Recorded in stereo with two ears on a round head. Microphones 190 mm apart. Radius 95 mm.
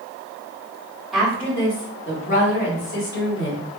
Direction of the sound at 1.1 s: Centre (ahead or behind).